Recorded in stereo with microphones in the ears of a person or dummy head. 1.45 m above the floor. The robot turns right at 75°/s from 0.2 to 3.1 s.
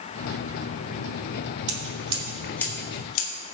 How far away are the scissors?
About 2.5 m.